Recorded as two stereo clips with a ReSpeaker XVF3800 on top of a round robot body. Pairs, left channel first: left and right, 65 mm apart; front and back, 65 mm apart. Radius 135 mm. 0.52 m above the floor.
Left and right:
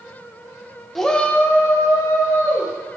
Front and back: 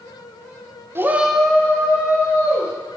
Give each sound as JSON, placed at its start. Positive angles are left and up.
{"t": 0.9, "sound": "a shout", "azimuth_deg": 175, "distance_m": 1.0}